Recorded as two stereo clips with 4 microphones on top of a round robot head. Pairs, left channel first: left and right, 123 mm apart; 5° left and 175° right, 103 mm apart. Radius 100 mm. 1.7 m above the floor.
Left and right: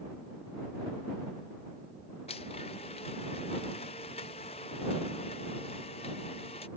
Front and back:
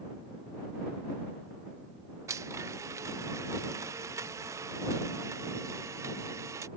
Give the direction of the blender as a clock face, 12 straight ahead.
8 o'clock.